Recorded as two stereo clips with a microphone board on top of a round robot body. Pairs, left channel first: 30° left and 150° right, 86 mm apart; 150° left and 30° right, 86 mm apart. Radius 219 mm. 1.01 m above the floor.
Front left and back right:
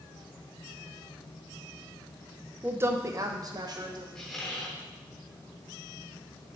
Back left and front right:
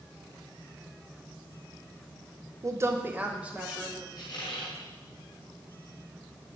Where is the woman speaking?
80° right, 0.6 m; by 4.0 s 115° right, 1.5 m.